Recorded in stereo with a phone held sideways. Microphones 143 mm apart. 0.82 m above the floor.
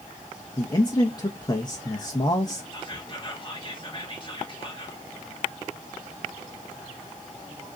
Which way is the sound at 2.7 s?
35° left (ahead or behind).